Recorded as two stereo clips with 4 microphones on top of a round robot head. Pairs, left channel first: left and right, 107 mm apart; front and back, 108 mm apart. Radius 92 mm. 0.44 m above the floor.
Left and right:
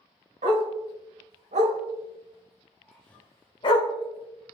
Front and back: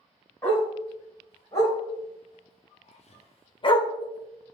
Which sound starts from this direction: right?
A dog barking, at 0.4 s.